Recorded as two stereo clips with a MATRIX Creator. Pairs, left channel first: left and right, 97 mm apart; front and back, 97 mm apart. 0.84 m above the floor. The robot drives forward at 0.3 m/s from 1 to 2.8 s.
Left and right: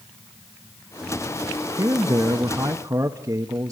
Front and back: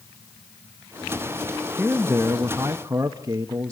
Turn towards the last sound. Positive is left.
turn(degrees=-135)